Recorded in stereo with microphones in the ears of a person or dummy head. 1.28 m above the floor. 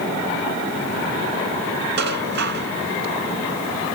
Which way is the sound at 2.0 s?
65° right (ahead or behind).